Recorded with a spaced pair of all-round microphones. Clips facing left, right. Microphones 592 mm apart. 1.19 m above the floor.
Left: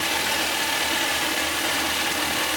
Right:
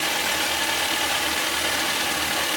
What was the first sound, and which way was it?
Only background noise.